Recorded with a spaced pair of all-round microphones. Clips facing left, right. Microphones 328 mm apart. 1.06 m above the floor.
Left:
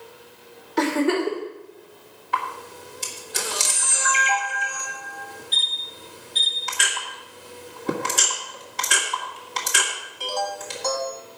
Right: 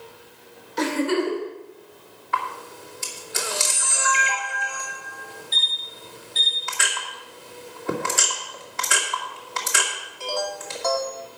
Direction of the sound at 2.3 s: 40° left (ahead or behind).